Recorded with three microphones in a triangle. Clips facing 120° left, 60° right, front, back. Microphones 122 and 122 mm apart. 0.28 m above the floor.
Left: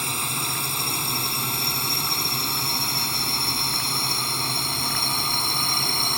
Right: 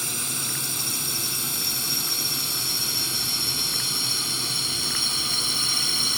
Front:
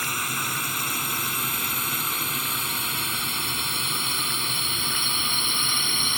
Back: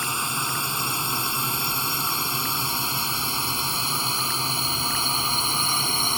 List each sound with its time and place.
0.0 s a drone: 120° left; by 6.2 s 135° left